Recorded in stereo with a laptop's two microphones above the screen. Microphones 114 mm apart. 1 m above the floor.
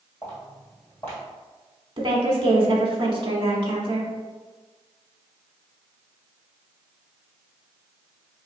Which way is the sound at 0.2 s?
15° left (ahead or behind).